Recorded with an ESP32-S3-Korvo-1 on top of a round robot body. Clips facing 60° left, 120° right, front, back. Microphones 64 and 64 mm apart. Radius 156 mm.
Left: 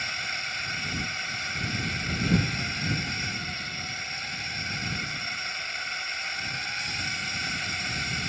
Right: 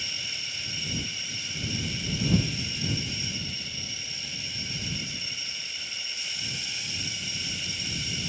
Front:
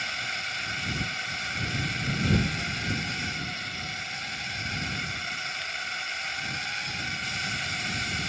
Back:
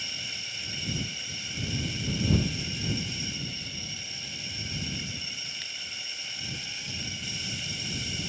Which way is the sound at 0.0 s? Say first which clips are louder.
Left 6 dB, front 8 dB; 25° left.